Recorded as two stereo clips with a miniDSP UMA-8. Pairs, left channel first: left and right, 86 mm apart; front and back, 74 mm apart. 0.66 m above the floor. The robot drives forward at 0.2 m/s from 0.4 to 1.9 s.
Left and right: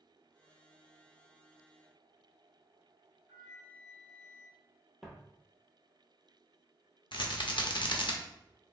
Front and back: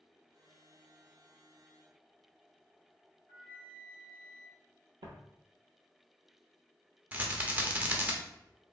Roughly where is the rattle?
Behind left.